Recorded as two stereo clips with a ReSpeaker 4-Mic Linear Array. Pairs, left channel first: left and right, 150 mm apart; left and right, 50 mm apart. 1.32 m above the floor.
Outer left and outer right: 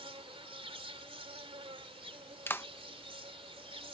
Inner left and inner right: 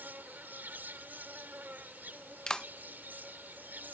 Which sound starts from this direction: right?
An insect, at 0.0 s.